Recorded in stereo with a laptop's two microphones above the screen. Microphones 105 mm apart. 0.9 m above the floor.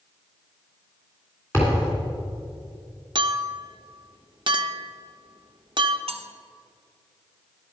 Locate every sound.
1.5 s a thud: 25° left (ahead or behind), 3 m
3.1 s a clink: 45° right (ahead or behind), 0.7 m
6.1 s cutlery clinking: 65° right (ahead or behind), 0.6 m